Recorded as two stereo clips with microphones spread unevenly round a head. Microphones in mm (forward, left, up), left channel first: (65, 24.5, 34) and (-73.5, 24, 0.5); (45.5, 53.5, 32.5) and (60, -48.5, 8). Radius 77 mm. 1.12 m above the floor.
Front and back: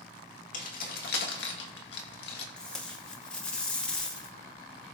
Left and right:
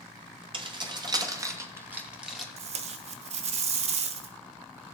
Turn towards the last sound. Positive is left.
turn(degrees=-70)